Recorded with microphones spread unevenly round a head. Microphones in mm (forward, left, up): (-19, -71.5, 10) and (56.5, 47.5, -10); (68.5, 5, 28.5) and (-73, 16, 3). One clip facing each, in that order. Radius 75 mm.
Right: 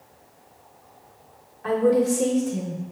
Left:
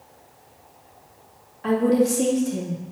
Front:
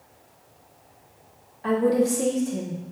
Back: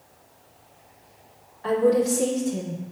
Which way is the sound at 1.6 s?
60° left.